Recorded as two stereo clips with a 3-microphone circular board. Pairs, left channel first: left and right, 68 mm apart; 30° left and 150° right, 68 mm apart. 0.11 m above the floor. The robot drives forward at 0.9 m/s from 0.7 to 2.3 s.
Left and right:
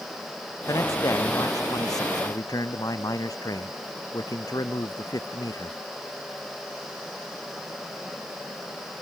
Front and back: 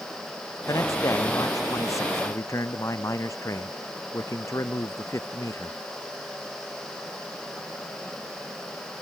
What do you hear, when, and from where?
0.7 s a man speaking: 60° left; by 5.8 s 70° left